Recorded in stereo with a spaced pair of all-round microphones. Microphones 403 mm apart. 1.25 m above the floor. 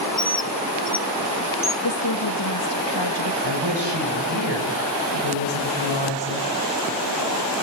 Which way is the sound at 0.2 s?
40° left (ahead or behind).